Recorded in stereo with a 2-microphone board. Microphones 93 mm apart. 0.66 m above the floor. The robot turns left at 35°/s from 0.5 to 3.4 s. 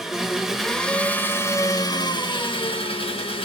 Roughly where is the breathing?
No breathing in this recording.